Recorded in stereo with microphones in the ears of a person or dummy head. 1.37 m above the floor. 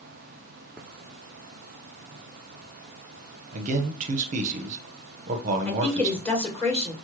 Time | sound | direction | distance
3.5 | a man speaking | 40° right (ahead or behind) | 0.7 m
5.7 | a woman speaking | 15° left (ahead or behind) | 2 m